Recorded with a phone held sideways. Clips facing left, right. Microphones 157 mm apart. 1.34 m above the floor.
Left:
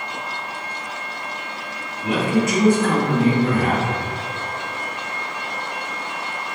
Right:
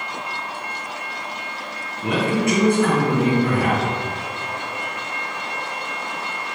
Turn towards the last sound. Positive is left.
turn(degrees=-60)  # may be behind; listen again after turning